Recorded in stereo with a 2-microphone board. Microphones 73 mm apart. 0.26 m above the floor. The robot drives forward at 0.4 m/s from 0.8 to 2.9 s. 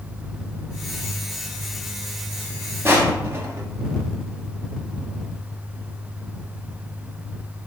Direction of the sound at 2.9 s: 35° right (ahead or behind).